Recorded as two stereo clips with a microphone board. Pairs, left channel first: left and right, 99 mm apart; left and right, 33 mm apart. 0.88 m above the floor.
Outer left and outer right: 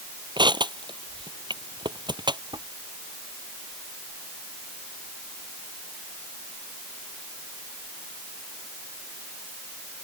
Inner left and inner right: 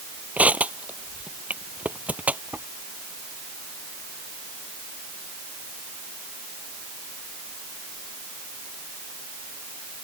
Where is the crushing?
55° right (ahead or behind).